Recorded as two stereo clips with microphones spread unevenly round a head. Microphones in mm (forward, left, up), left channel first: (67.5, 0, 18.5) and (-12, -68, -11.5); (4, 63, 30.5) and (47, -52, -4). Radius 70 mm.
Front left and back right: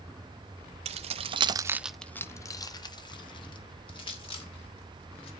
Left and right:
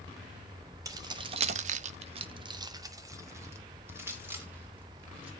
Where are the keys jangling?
135° right, 1.1 m; by 5.3 s 5° left, 3.5 m.